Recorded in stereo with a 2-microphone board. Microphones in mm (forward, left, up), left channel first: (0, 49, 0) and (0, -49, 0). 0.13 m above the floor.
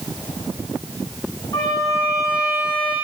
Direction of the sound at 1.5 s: 40° left (ahead or behind).